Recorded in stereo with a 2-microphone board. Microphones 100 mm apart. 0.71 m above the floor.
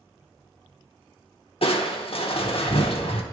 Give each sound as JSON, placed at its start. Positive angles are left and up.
{"t": 1.6, "sound": "crushing", "side_deg": 65, "distance_m": 0.9}